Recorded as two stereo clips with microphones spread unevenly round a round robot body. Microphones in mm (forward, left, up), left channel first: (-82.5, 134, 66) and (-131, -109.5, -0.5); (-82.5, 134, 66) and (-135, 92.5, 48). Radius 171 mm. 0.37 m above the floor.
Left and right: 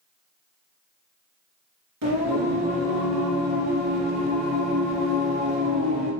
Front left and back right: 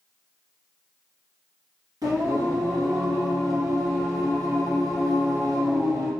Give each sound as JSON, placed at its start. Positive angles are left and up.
{"t": 2.0, "sound": "singing", "azimuth_deg": -105, "distance_m": 2.0}